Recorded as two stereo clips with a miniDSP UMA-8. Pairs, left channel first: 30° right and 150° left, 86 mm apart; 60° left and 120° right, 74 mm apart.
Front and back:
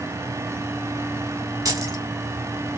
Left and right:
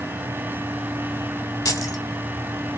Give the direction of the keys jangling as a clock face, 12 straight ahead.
9 o'clock.